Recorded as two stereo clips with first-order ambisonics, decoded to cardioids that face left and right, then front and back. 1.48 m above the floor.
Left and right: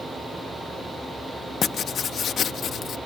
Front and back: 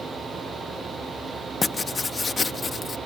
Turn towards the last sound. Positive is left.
turn(degrees=60)